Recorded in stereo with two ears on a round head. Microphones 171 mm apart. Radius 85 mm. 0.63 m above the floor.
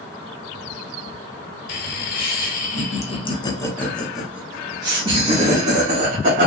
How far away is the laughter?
About 1.6 m.